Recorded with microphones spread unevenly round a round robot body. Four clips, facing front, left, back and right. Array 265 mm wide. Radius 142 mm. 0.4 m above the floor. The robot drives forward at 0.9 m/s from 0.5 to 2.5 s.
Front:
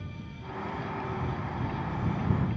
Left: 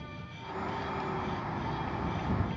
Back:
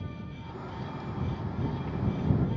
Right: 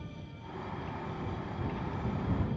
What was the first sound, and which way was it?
Only background noise.